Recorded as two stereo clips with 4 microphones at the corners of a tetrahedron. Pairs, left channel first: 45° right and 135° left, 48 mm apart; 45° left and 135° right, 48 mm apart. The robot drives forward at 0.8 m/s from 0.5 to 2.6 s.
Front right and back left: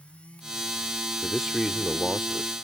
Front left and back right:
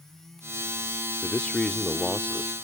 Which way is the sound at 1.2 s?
15° left.